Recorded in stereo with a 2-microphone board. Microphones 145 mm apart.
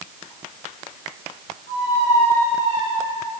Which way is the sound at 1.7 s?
50° left (ahead or behind).